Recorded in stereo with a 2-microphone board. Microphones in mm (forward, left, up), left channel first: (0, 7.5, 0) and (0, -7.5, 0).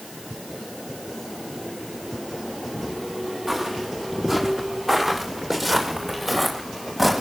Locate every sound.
3.5 s footsteps: 25° right (ahead or behind), 8.5 m; by 7.2 s 5° right (ahead or behind), 9 m